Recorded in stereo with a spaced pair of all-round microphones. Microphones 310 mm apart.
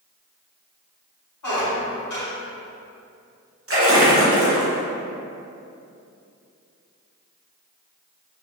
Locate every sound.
1.4 s a squeak: 70° left (ahead or behind), 0.6 m
3.7 s a splash: 45° right (ahead or behind), 0.6 m